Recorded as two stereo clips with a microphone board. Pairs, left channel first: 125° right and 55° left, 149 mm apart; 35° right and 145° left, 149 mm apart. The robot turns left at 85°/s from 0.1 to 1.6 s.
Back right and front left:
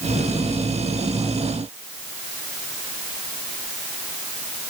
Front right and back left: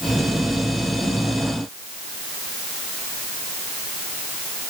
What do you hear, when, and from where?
Only background noise.